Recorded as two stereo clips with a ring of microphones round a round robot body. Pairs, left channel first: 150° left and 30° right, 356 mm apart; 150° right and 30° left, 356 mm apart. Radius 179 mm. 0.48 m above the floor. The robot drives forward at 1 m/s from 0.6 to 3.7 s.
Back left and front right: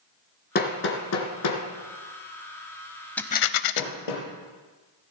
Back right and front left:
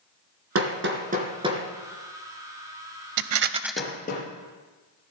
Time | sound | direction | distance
0.6 | hammering | 85° left | 2 m
3.2 | a rattle | 65° left | 0.6 m